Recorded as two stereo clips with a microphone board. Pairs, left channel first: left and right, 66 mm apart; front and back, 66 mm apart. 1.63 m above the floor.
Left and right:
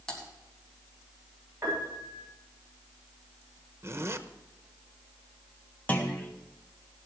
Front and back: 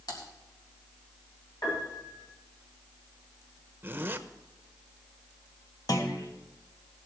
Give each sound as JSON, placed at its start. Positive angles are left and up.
{"t": 0.1, "sound": "typing on a keyboard", "azimuth_deg": 10, "distance_m": 3.5}
{"t": 1.6, "sound": "a piano", "azimuth_deg": -30, "distance_m": 7.5}
{"t": 3.8, "sound": "a zipper", "azimuth_deg": -125, "distance_m": 0.9}
{"t": 5.9, "sound": "a clunk", "azimuth_deg": 25, "distance_m": 1.8}